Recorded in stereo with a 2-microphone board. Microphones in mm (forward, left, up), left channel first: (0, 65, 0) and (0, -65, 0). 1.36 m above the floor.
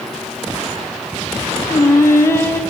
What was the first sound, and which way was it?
Singing, 20° left (ahead or behind).